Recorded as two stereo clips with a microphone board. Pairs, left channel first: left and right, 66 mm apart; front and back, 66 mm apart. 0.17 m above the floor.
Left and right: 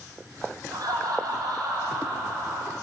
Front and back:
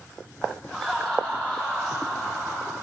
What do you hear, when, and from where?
0.7 s laughter: 80° right, 7.5 m; by 2.7 s 65° right, 8 m